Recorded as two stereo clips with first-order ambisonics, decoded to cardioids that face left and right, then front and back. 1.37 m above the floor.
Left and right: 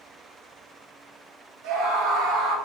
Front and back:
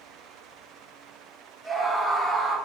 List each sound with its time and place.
1.6 s a scream: 85° right, 3.5 m